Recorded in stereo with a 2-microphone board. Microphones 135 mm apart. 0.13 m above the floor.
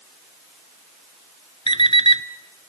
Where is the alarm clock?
45° left (ahead or behind), 0.9 m.